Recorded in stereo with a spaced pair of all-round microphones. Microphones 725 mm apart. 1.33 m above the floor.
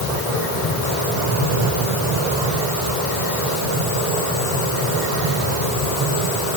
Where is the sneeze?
I don't hear a sneeze.